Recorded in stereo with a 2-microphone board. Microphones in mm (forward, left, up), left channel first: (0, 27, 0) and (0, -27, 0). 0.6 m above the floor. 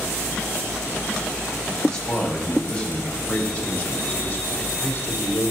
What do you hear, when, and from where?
1.9 s a man speaking: 10° left (ahead or behind), 4 m; by 5.5 s 40° left (ahead or behind), 3 m